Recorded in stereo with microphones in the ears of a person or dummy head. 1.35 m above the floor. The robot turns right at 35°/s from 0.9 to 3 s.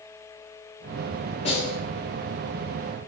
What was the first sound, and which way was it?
A snare drum, 35° left (ahead or behind).